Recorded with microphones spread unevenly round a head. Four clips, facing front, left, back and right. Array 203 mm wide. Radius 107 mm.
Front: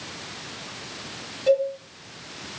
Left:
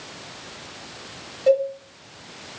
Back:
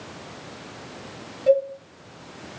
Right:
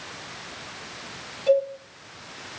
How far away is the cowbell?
About 1.8 m.